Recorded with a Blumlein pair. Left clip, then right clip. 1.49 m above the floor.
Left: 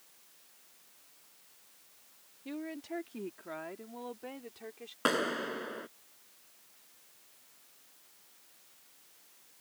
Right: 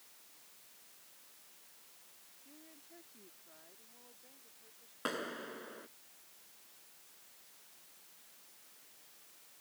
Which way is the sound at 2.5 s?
50° left.